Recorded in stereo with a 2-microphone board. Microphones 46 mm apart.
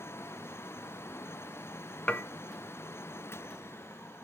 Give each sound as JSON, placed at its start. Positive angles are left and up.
{"t": 2.1, "sound": "dishes clattering", "side_deg": 35, "distance_m": 1.0}